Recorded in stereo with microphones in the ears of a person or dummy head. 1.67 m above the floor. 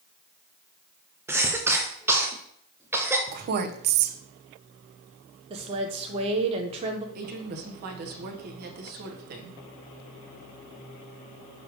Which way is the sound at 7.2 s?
40° right (ahead or behind).